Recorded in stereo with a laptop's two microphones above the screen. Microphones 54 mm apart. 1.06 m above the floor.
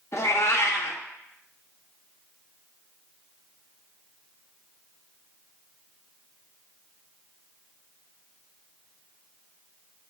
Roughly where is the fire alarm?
I don't hear a fire alarm.